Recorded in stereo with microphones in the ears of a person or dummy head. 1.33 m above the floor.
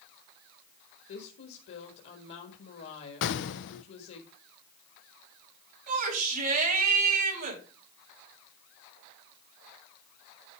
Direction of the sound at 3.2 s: 65° left (ahead or behind).